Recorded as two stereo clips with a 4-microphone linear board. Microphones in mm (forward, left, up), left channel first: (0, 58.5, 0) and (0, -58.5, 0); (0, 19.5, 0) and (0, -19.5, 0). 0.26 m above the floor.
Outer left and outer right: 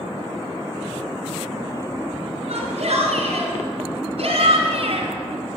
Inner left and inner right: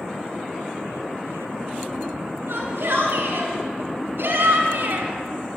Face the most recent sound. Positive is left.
turn(degrees=-55)  # may be behind; listen again after turning